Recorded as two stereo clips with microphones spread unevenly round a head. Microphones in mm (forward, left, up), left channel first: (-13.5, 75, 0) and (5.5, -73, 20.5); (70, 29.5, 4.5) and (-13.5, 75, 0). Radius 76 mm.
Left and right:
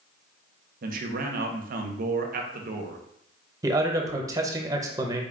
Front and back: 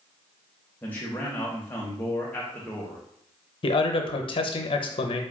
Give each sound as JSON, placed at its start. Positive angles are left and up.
{"t": 0.8, "sound": "a man speaking", "azimuth_deg": -105, "distance_m": 0.6}
{"t": 3.6, "sound": "a man speaking", "azimuth_deg": -10, "distance_m": 0.6}